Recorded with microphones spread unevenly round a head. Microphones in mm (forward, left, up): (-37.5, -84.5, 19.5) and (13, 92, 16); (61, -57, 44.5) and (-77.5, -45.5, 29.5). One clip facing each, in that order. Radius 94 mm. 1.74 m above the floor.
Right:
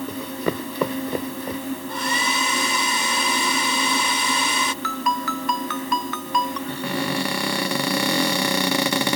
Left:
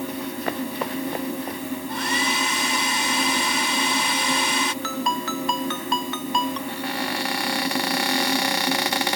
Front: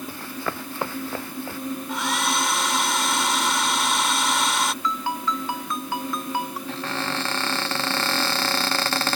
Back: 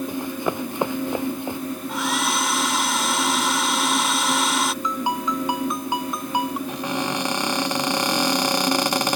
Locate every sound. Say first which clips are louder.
0.1 s running footsteps: right 2 dB, back 6 dB; 110° right
1.9 s a hair dryer: even, back 1 dB; 95° right
4.8 s a ringtone: even, back 2 dB; 100° left
6.7 s a cupboard door: right 3 dB, back 3 dB; 110° right